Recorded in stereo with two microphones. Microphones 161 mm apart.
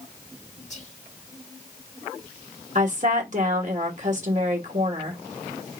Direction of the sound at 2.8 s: 50° right (ahead or behind).